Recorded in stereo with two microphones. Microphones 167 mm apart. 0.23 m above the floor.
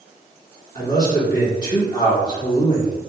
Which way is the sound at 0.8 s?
25° left (ahead or behind).